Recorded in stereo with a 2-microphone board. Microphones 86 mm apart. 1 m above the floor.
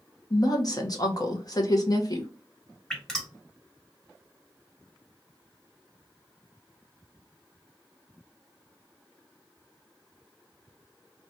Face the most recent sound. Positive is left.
turn(degrees=5)  # may be behind; listen again after turning